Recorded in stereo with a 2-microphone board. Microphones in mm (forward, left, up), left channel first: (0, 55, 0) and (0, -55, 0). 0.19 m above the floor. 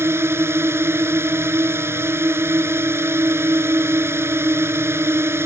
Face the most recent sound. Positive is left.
turn(degrees=-20)  # may be behind; listen again after turning